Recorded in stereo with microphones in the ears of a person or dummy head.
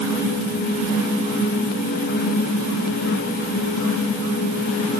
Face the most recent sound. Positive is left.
No sound to turn to.